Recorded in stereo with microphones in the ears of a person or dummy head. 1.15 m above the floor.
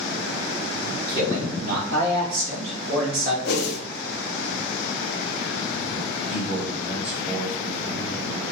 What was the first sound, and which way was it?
A man speaking, 55° right (ahead or behind).